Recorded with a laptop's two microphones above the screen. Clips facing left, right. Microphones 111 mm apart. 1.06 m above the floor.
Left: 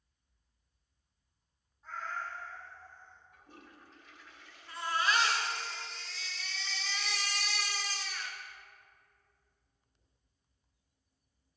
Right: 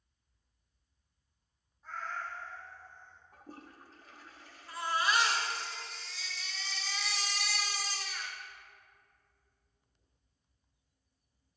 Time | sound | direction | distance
1.8 | a cat meowing | centre (ahead or behind) | 1.2 m
3.3 | a toilet flushing | 40° right (ahead or behind) | 0.5 m
4.7 | a baby crying | 10° right (ahead or behind) | 1.3 m